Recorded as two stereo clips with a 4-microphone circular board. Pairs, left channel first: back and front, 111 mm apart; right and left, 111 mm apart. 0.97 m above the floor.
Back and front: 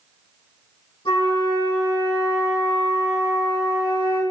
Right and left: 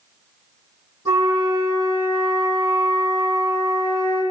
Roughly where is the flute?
Behind left.